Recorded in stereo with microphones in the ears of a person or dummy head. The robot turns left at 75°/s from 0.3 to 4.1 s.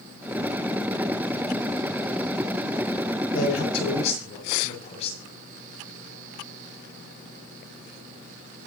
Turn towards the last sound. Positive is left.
turn(degrees=40)  # may be behind; listen again after turning